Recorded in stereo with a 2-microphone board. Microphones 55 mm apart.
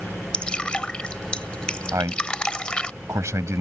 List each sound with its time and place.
0.3 s dripping: 20° left (ahead or behind)
1.9 s a man speaking: 65° right (ahead or behind)